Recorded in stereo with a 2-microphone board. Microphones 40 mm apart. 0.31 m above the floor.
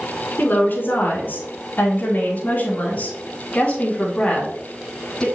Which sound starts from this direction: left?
A woman speaking, at 0.4 s.